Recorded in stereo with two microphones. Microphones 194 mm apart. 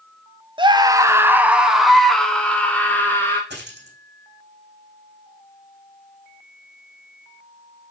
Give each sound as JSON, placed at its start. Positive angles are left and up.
{"t": 0.6, "sound": "a scream", "side_deg": -25, "distance_m": 1.1}
{"t": 3.5, "sound": "a dropped coin", "side_deg": -60, "distance_m": 3.5}